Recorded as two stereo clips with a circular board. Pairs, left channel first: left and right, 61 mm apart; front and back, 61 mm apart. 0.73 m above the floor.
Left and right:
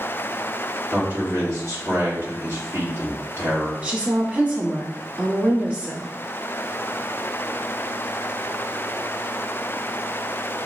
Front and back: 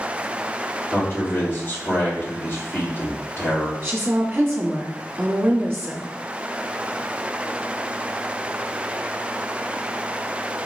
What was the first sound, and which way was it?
A man speaking, 50° right.